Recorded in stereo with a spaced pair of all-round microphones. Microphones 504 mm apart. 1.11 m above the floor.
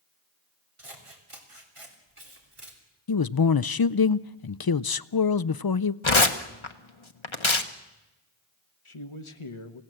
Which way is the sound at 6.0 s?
65° left (ahead or behind).